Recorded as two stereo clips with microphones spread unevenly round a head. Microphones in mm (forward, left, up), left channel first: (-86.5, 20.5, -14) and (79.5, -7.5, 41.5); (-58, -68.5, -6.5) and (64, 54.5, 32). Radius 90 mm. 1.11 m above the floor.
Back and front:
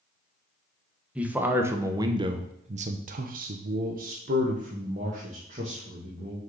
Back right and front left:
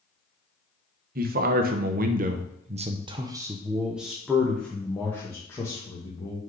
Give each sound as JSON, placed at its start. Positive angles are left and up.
{"t": 1.1, "sound": "a man speaking", "azimuth_deg": 85, "distance_m": 1.1}